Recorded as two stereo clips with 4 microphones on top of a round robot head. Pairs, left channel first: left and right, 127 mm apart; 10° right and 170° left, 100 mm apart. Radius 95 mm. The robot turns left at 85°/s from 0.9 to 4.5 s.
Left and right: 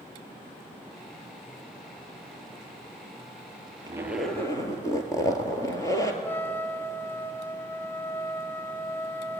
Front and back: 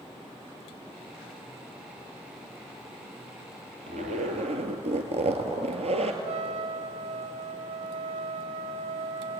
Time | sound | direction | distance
3.9 | a zipper | 150° right | 2.5 m
6.2 | a trumpet | 165° left | 1.4 m